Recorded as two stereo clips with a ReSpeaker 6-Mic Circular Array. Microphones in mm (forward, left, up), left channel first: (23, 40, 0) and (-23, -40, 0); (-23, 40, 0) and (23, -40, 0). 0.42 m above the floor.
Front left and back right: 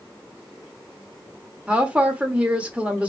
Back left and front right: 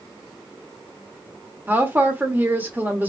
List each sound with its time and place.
1.7 s a woman speaking: 70° right, 1.0 m